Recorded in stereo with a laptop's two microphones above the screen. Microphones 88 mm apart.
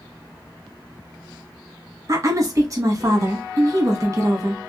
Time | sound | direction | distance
2.1 | a woman speaking | 40° right (ahead or behind) | 1.1 m